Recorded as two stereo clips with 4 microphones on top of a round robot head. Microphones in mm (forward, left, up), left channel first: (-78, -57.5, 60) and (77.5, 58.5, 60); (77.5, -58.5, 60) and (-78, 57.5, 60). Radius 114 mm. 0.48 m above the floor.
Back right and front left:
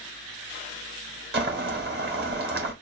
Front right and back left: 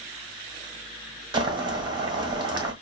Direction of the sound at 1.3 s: 75° left.